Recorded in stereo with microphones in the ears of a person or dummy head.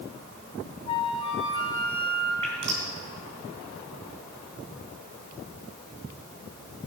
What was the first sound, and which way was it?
A flute, 35° left (ahead or behind).